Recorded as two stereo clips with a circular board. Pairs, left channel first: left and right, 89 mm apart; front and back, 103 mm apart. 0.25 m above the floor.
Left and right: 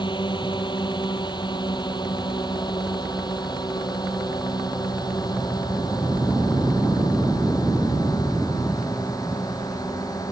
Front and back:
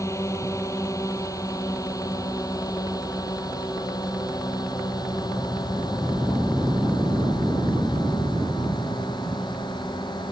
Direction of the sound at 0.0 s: 60° left.